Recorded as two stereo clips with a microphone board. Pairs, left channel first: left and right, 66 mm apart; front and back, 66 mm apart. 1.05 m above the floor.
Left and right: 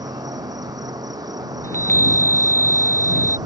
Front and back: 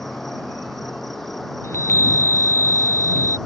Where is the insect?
85° right.